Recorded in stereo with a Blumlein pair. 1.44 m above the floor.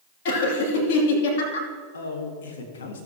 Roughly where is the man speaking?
Ahead left.